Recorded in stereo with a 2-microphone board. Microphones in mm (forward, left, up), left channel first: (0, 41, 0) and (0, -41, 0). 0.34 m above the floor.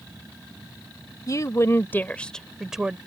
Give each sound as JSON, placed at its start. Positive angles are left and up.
{"t": 1.3, "sound": "a woman speaking", "side_deg": 45}